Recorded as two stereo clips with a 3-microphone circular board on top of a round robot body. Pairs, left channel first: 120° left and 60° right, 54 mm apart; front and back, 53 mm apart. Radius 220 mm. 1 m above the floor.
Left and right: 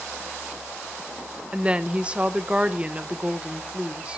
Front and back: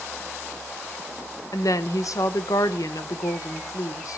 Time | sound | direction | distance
1.5 | a woman speaking | 10° left | 0.7 m